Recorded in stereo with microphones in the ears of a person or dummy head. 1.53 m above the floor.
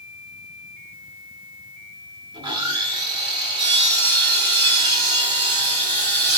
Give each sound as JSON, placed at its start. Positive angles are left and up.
{"t": 2.3, "sound": "sawing", "side_deg": -25, "distance_m": 1.6}